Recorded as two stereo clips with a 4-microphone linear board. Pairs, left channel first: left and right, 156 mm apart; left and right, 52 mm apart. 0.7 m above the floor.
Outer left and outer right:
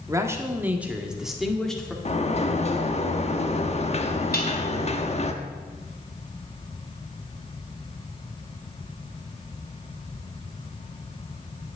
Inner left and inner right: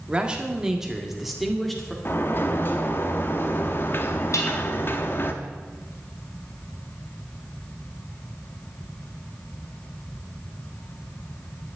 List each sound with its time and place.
0.1 s a man speaking: 20° right (ahead or behind), 1.8 m; by 1.9 s 5° left (ahead or behind), 2 m
2.0 s a sliding door: 45° left (ahead or behind), 1.1 m
4.3 s dishes clattering: 80° left, 3.5 m